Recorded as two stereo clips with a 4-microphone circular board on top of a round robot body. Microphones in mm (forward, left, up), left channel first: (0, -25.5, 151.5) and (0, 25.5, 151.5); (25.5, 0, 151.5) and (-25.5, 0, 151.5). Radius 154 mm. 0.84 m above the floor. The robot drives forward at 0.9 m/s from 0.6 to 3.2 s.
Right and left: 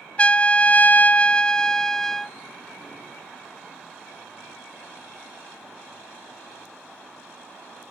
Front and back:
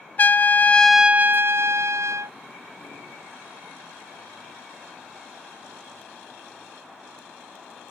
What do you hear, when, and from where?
0.2 s a trumpet: 35° right; by 2.4 s 170° right